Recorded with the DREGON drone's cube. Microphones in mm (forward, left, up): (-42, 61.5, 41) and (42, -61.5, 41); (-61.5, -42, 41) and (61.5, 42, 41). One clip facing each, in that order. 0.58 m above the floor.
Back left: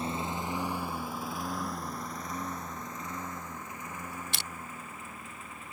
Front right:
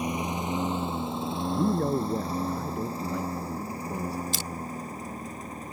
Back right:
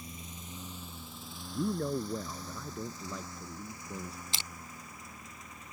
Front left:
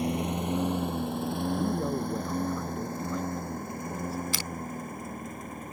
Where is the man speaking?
55° right.